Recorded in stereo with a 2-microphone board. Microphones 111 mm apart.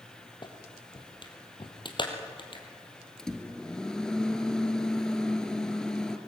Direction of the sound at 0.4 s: 45° left (ahead or behind).